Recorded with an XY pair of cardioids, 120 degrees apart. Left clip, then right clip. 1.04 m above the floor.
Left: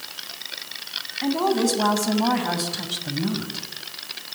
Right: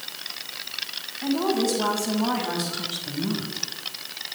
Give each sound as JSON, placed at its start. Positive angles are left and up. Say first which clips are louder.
{"t": 1.2, "sound": "a woman speaking", "louder": "left 2 dB", "azimuth_deg": 40, "distance_m": 6.5}